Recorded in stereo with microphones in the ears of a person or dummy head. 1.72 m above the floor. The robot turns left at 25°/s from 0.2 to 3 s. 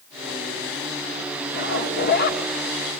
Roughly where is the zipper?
Left.